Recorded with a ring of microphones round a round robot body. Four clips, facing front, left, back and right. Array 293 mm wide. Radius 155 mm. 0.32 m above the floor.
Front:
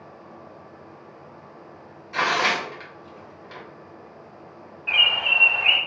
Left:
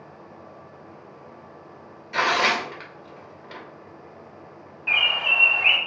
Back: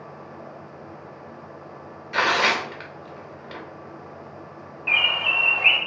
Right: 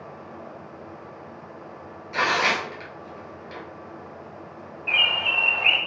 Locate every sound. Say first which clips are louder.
2.1 s tearing paper: left 1 dB, back 1 dB; 160° left, 0.8 m
4.9 s a bird: left 1 dB, even; 150° left, 1.4 m